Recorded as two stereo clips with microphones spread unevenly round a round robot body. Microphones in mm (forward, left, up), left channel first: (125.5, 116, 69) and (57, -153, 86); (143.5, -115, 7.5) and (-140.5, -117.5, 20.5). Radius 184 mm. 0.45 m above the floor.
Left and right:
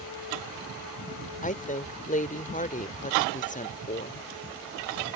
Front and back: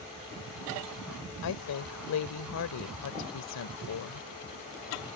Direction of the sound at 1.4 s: 15° left.